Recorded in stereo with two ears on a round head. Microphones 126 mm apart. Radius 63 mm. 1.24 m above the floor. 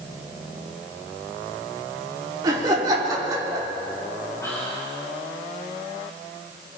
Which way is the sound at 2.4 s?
25° right (ahead or behind).